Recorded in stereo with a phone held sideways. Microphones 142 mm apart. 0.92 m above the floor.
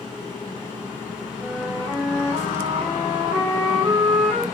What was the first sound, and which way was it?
A flute, 15° left (ahead or behind).